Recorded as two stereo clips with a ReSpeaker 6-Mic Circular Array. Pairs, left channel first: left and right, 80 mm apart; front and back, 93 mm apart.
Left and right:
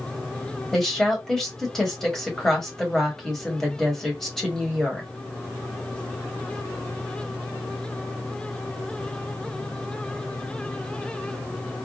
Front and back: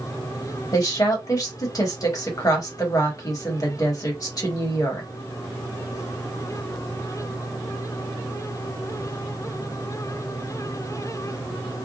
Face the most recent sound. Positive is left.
turn(degrees=10)